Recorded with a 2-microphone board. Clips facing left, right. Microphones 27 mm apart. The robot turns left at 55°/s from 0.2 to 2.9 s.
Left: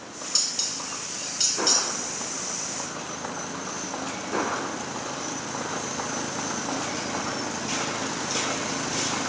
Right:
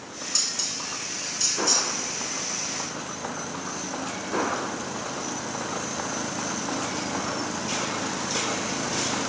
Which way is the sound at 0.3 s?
30° left (ahead or behind).